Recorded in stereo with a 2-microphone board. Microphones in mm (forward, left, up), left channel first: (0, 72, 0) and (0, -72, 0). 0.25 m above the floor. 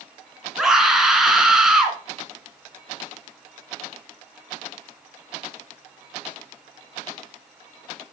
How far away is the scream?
About 2.5 m.